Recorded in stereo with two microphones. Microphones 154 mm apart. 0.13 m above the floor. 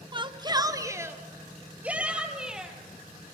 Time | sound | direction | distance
0.1 | a shout | 30° right (ahead or behind) | 1.2 m